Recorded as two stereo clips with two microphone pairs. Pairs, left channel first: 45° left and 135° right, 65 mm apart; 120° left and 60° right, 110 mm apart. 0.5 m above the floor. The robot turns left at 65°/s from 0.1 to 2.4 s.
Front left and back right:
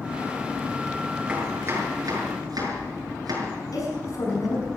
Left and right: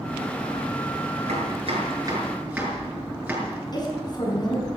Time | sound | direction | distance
1.3 | chopping | 60° right | 6.5 m
3.7 | a woman speaking | 75° left | 5.5 m